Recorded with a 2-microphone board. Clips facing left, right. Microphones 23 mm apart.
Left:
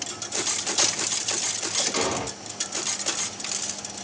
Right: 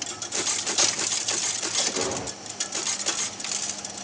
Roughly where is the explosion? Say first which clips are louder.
Left 3 dB; left.